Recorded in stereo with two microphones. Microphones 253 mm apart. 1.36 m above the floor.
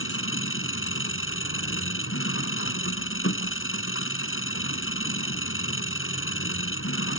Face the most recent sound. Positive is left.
turn(degrees=55)  # may be behind; listen again after turning